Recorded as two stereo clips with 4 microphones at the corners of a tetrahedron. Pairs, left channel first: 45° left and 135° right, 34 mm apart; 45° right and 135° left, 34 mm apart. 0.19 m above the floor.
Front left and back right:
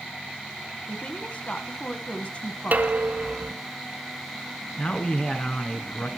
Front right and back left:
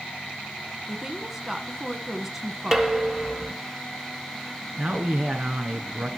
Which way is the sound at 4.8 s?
90° left.